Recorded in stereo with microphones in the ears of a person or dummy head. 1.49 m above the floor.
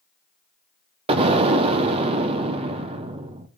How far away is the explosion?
About 0.5 m.